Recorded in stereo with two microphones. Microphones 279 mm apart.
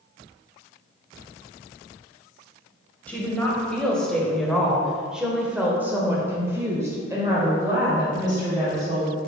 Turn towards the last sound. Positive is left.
turn(degrees=-15)  # may be behind; listen again after turning